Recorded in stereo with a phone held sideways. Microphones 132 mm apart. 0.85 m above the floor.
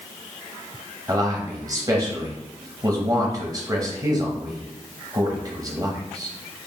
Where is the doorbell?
No doorbell in this recording.